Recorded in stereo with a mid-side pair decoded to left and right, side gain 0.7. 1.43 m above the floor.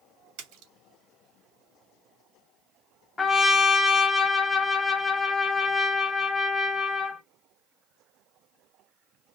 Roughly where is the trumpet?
Ahead.